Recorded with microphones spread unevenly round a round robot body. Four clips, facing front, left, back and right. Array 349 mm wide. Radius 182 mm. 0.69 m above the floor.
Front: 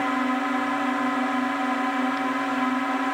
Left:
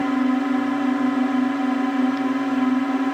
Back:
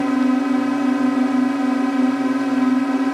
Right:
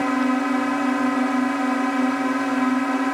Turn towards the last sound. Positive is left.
turn(degrees=165)